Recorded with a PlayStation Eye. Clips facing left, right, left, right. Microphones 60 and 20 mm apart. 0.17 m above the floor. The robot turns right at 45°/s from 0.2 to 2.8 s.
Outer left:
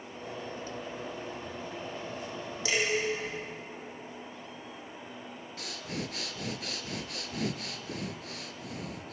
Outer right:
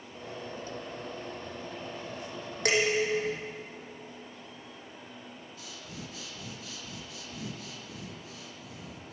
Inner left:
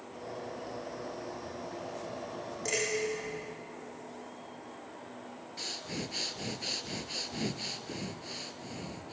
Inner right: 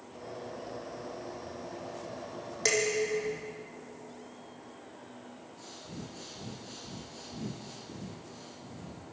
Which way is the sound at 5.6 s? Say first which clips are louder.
Outer left 9 dB, inner left 9 dB; 70° left (ahead or behind).